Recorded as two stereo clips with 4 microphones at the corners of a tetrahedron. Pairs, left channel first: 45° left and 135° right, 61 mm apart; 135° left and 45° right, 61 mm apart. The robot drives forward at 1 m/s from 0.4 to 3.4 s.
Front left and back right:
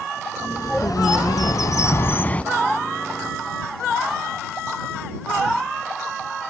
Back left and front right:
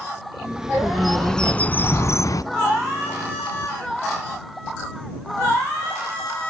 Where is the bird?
30° left, 1.8 m; by 2.4 s 115° left, 1.1 m.